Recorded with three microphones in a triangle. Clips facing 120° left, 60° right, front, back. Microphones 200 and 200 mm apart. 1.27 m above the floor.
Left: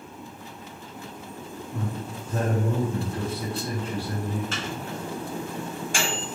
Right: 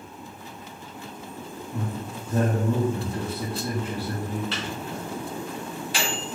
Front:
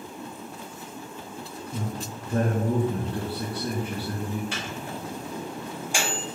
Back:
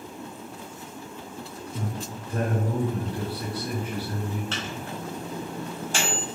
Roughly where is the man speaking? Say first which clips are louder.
Right 1 dB, even; ahead.